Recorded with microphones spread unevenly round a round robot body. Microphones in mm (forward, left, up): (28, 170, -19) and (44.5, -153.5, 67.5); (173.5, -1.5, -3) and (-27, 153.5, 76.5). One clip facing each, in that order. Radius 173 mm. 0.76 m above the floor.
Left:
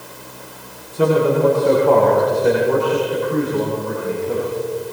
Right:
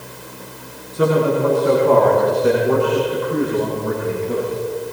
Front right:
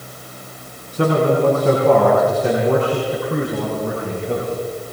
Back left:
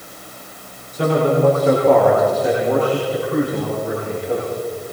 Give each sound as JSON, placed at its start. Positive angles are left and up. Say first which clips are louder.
{"t": 0.9, "sound": "a man speaking", "louder": "left 1 dB, even", "azimuth_deg": -10, "distance_m": 9.0}